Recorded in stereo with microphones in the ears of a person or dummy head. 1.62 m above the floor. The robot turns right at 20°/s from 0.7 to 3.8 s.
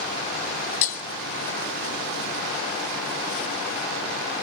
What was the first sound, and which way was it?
Breaking glass, 40° left (ahead or behind).